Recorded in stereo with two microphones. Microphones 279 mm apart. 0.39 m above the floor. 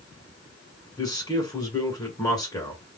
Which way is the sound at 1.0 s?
15° left (ahead or behind).